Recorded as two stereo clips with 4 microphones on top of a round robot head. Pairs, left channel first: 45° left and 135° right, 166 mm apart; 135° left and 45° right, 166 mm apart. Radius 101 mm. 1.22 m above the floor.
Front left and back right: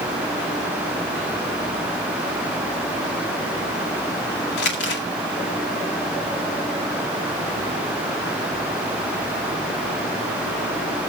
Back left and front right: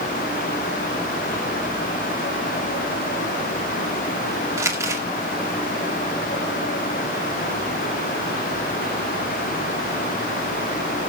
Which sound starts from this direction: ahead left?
Crumpling, at 4.6 s.